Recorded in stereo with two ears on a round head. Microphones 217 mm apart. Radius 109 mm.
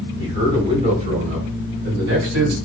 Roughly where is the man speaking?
Centre.